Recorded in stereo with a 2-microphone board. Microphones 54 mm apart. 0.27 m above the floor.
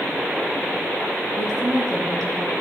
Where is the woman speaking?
75° right (ahead or behind), 7 m.